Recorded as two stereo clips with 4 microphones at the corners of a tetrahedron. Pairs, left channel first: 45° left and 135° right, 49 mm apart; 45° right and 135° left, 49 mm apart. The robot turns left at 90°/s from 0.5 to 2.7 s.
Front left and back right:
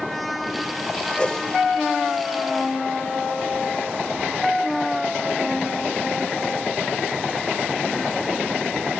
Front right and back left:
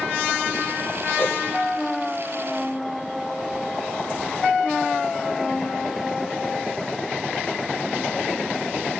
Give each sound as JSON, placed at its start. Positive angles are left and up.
{"t": 1.2, "sound": "a whoosh", "azimuth_deg": -15, "distance_m": 2.5}